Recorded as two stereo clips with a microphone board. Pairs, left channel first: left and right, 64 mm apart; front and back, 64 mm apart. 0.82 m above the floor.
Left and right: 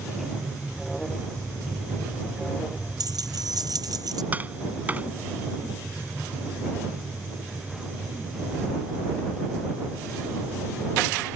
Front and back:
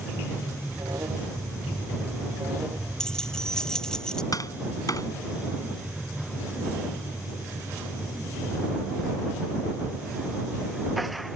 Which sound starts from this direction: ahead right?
Tapping, at 4.3 s.